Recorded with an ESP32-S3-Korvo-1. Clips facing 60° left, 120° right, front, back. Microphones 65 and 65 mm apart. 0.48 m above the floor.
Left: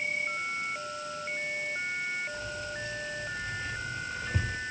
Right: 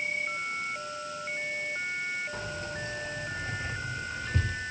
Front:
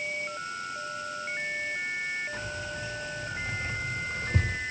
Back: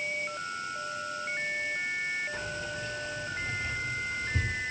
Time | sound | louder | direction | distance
2.3 | keys jangling | right 1 dB, even | 85° right | 3.5 m